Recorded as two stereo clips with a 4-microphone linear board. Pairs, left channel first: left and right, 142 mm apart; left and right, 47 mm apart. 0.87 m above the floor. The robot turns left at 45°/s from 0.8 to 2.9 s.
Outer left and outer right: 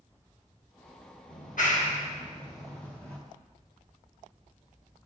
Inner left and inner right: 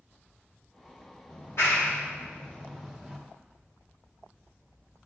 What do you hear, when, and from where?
1.3 s a clap: 75° left (ahead or behind), 1.3 m; by 3.2 s 10° left (ahead or behind), 1.3 m